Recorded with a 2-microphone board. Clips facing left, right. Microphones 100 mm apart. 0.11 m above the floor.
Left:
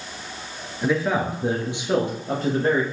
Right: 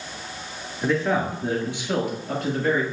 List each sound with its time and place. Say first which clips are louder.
0.8 s a man speaking: even; 5° left (ahead or behind), 1.3 m; by 2.8 s 35° left (ahead or behind), 1.9 m